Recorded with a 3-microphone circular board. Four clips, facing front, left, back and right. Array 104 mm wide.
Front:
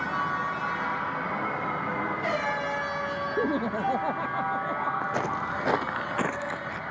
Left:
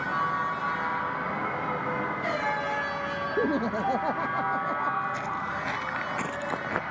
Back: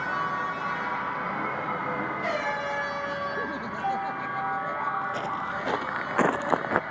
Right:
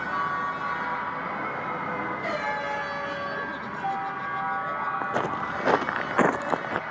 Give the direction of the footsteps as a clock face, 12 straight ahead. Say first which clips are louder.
Right 3 dB, front 1 dB; 2 o'clock.